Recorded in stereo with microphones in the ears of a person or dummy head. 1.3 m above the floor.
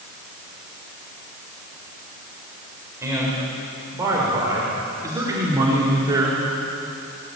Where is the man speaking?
20° right (ahead or behind), 5.5 m; by 6.4 s 25° right (ahead or behind), 3.5 m.